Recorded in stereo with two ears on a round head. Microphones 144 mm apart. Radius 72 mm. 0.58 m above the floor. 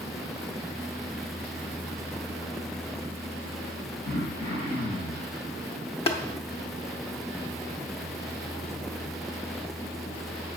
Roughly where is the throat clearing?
Left.